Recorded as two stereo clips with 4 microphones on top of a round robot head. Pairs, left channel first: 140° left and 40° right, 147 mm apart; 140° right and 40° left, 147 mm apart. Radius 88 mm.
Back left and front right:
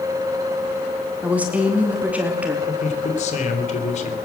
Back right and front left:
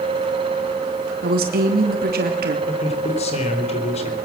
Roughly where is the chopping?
I don't hear chopping.